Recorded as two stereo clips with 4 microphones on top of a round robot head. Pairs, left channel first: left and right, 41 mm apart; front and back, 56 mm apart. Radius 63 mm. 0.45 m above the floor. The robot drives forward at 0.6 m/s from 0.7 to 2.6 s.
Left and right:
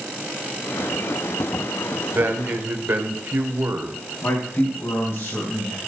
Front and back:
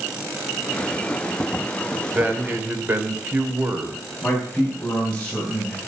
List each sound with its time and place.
2.1 s a man speaking: 115° right, 2.5 m; by 4.0 s 120° right, 2.5 m
4.2 s a man speaking: 70° left, 4 m